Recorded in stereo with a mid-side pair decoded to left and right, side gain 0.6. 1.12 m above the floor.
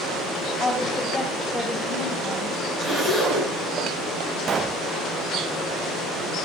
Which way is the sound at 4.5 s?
35° right.